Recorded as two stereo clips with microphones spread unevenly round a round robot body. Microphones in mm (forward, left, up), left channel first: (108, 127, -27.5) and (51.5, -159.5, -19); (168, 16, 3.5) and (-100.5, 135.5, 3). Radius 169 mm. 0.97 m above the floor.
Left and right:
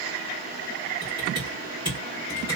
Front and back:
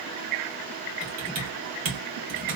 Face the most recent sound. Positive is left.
turn(degrees=180)